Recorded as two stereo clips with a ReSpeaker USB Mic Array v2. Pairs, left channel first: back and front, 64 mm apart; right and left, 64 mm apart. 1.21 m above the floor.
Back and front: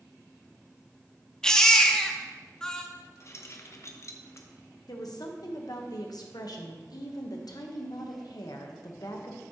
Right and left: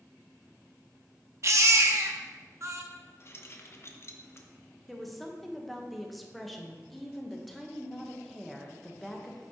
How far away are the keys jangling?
About 0.7 m.